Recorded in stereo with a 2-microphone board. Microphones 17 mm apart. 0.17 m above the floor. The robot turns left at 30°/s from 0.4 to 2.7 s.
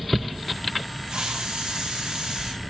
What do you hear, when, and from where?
1.1 s a hiss: 85° right, 7.5 m; by 2.5 s 130° right, 7.5 m